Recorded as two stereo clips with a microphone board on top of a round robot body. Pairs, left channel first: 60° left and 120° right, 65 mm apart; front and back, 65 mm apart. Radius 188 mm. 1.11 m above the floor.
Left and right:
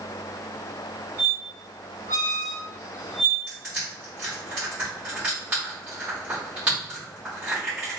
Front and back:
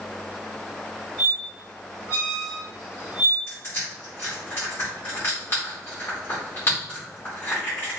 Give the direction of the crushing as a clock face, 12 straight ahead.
2 o'clock.